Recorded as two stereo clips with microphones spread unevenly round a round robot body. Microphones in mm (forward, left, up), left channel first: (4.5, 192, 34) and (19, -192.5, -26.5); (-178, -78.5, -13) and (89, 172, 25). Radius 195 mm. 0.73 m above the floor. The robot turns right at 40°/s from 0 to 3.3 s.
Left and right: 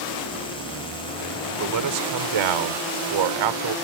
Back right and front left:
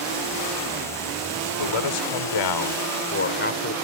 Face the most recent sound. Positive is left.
turn(degrees=-70)